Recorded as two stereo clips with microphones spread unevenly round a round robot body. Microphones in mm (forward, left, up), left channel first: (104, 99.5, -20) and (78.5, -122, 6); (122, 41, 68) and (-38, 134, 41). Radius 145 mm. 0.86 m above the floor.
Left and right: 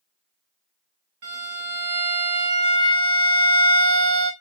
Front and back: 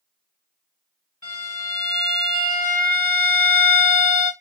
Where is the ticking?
I don't hear ticking.